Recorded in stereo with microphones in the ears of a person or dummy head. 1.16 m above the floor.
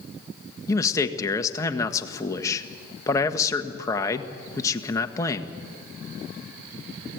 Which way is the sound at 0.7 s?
20° left (ahead or behind).